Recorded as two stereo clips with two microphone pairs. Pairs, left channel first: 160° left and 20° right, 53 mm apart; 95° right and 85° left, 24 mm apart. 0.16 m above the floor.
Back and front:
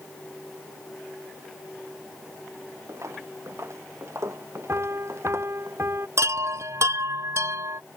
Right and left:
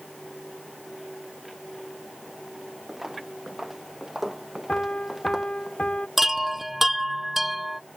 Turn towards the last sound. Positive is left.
turn(degrees=0)